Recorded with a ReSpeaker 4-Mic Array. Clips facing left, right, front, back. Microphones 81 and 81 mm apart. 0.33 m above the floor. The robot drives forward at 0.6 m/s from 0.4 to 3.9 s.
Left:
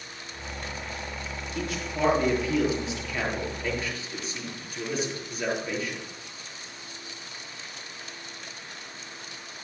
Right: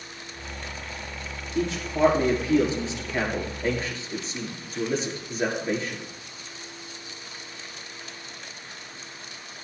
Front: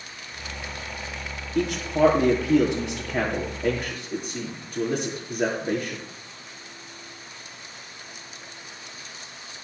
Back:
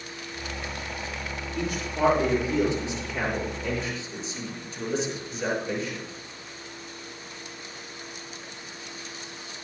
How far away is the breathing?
I don't hear breathing.